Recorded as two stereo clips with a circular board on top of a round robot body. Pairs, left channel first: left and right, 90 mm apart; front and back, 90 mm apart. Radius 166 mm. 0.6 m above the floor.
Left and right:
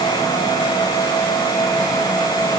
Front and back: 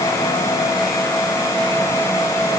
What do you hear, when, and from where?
Only background noise.